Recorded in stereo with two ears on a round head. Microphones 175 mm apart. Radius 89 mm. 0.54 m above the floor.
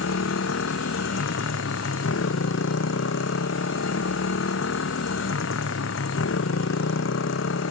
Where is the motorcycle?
70° left (ahead or behind).